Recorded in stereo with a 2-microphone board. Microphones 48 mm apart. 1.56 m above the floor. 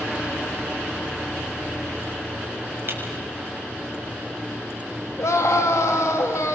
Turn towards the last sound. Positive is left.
turn(degrees=80)